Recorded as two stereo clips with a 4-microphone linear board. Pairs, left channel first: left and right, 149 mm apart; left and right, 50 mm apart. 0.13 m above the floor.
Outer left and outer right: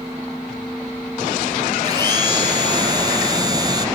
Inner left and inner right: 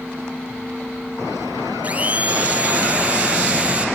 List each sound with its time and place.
1.8 s a blender: 30° right (ahead or behind), 0.6 m